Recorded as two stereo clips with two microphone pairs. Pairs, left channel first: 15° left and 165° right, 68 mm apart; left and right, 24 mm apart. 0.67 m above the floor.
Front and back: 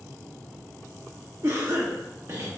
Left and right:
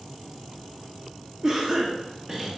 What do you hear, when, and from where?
1.4 s a cough: 140° right, 0.6 m